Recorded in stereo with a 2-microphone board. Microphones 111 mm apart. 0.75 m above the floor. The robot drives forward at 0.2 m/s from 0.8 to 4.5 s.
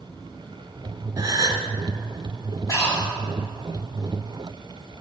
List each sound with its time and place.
1.2 s a gasp: 35° right (ahead or behind), 0.9 m; by 1.6 s 30° right (ahead or behind), 0.9 m
2.7 s breathing: 35° left (ahead or behind), 1.4 m; by 3.1 s 30° left (ahead or behind), 1.5 m